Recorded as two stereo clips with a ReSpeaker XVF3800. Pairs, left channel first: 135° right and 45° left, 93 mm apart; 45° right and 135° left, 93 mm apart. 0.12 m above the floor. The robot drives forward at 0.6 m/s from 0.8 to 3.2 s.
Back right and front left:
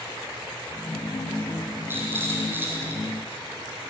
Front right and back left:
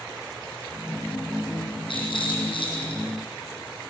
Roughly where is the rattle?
Ahead.